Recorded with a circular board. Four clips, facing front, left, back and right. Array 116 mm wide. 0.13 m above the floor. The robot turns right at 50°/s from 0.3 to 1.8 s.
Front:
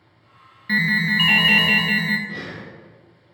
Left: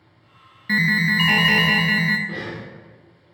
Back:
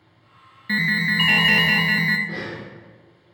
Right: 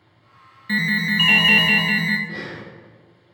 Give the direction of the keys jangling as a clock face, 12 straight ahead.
No keys jangling in this recording.